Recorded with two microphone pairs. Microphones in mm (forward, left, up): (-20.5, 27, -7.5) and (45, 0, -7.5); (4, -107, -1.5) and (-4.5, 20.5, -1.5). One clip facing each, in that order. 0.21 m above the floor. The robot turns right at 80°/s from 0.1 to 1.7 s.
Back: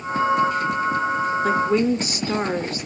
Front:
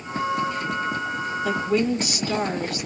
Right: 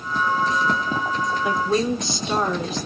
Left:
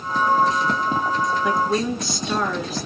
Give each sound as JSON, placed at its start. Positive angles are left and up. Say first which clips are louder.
{"t": 1.4, "sound": "a woman speaking", "louder": "back 2 dB, right 2 dB", "azimuth_deg": -170, "distance_m": 2.0}